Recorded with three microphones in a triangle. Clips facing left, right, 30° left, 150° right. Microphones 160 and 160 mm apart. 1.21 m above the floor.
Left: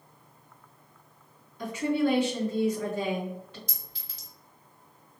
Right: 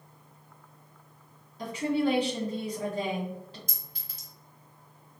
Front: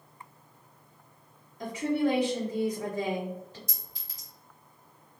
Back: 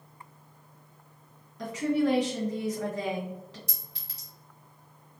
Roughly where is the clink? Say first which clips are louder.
Even, back 1 dB; behind right.